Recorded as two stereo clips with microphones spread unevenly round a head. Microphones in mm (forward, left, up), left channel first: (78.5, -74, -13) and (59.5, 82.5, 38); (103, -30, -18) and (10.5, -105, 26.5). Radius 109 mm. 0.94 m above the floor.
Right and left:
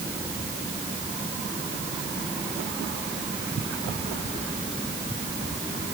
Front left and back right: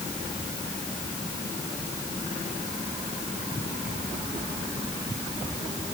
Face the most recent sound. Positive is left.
No sound to turn to.